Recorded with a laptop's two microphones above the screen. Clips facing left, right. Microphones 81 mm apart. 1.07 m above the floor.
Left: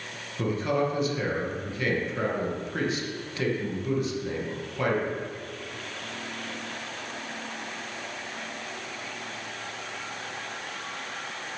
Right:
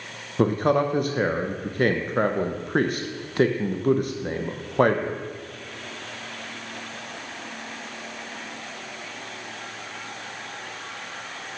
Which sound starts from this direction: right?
A man speaking, at 0.4 s.